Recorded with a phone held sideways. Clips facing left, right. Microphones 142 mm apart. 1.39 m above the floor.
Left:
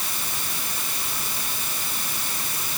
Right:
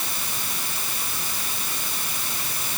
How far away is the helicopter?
I don't hear a helicopter.